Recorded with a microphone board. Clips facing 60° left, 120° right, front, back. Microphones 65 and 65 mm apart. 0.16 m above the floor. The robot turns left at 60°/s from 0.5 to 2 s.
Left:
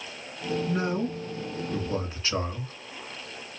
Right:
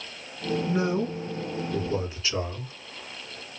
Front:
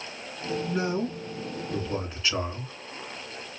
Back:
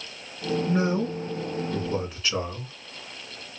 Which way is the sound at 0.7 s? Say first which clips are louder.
Right 3 dB, back 3 dB; 175° left.